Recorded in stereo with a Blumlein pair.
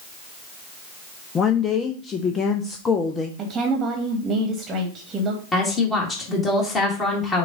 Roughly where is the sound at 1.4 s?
Ahead.